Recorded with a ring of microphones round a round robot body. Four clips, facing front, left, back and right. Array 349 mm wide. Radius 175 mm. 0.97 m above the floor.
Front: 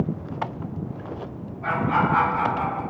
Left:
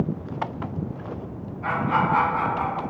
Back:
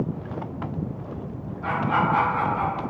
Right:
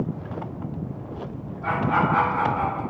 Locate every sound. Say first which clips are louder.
1.6 s laughter: even, front 1 dB; 120° left, 1.3 m; by 2.8 s 105° left, 1.8 m